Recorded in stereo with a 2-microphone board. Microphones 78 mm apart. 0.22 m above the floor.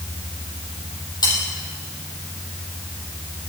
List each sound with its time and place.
1.2 s cutlery clinking: 65° left (ahead or behind), 5 m